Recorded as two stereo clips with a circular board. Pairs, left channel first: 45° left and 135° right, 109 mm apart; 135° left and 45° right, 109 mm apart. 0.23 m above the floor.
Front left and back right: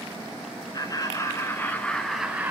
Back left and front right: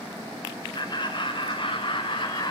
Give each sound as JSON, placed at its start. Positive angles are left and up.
{"t": 0.7, "sound": "laughter", "azimuth_deg": 95, "distance_m": 2.5}